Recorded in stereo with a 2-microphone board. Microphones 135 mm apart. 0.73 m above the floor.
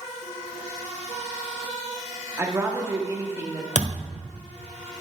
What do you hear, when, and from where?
2.4 s a woman speaking: 20° right (ahead or behind), 1.3 m
3.8 s a thud: 65° left (ahead or behind), 1.0 m